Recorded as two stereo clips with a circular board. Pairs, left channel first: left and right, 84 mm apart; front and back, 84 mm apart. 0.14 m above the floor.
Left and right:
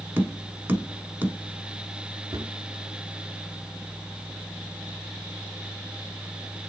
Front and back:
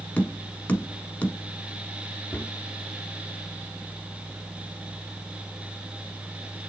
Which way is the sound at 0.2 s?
55° right.